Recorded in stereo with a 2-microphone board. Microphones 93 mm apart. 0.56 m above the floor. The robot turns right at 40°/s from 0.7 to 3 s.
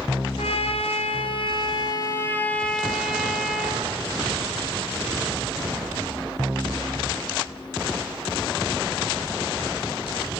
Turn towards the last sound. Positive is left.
turn(degrees=-175)